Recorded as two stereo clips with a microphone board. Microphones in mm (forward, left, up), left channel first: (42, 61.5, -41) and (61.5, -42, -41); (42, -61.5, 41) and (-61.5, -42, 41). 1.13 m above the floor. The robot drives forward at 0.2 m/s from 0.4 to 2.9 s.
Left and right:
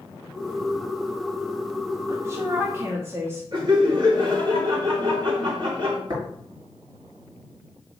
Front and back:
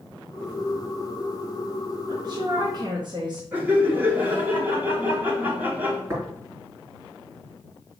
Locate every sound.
2.1 s a woman speaking: 140° right, 1.2 m; by 3.4 s 145° right, 1.3 m
3.5 s laughter: 120° right, 2.5 m
6.1 s tapping: 125° right, 4 m